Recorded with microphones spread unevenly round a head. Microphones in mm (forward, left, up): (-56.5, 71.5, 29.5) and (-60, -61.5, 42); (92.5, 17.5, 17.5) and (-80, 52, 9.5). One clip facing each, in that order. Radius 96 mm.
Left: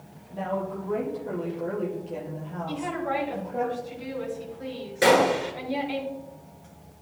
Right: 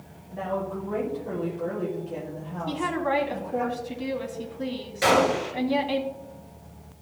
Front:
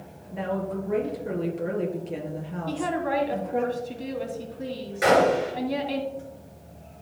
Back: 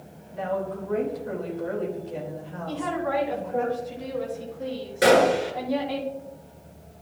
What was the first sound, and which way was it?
A woman speaking, straight ahead.